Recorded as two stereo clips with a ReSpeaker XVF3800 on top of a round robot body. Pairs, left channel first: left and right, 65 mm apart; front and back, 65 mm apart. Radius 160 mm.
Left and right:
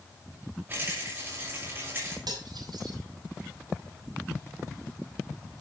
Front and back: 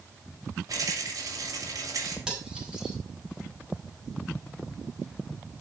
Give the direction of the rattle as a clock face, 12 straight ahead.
5 o'clock.